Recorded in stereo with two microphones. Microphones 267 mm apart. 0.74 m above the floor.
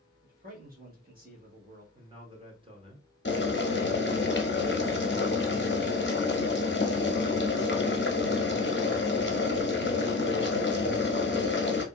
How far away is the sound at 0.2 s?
About 1.3 m.